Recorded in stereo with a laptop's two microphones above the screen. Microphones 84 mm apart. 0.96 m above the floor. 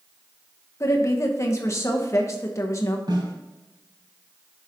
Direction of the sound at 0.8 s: 35° left (ahead or behind).